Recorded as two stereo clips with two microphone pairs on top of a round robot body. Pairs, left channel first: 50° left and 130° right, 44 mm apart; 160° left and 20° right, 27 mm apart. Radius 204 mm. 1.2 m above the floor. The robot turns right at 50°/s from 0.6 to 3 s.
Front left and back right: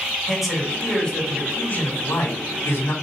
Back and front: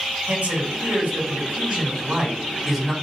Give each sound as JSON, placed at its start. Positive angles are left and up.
{"t": 0.3, "sound": "a man speaking", "azimuth_deg": -35, "distance_m": 4.5}